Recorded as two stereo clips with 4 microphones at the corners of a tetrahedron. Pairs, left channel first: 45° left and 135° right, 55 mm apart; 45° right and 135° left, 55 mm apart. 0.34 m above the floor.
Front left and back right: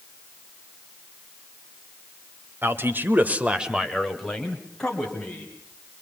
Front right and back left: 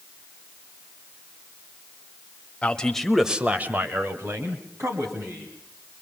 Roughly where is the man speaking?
Right.